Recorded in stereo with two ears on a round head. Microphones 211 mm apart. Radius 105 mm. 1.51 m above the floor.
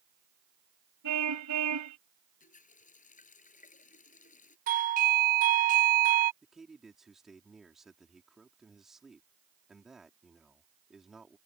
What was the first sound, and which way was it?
A car horn, 85° right.